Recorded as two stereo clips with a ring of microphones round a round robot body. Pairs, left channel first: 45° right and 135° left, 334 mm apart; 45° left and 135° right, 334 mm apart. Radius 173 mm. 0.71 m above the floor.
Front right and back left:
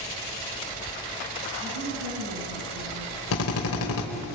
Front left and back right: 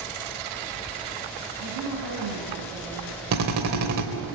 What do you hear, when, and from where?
1.6 s a woman speaking: 165° right, 6.5 m; by 3.2 s 175° right, 7.5 m
3.3 s a drill: 95° right, 3 m